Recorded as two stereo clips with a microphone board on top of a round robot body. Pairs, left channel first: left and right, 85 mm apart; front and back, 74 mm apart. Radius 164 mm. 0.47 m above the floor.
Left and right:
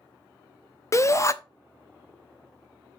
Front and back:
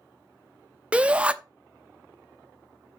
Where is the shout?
115° left, 0.8 m.